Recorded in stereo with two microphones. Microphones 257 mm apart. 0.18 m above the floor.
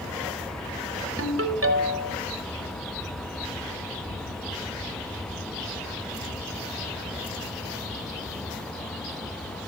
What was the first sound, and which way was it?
A ringtone, 60° right (ahead or behind).